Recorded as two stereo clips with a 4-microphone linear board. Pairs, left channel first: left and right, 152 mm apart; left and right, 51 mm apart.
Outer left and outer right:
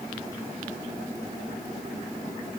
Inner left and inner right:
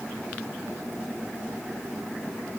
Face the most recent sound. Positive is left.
No sound to turn to.